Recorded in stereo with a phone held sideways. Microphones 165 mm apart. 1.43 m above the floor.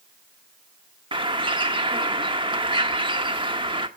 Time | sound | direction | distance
1.1 | a bird | 30° right (ahead or behind) | 1.2 m